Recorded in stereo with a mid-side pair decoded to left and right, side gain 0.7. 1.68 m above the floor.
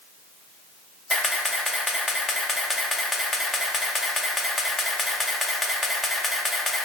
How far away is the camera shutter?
About 0.9 m.